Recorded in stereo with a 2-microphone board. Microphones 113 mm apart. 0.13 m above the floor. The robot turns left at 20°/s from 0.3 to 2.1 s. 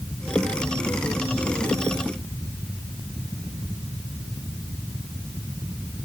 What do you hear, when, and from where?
Only background noise.